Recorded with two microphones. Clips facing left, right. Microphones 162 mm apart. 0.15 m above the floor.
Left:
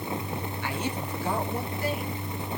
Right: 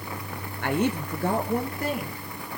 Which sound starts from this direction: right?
A woman speaking, at 0.6 s.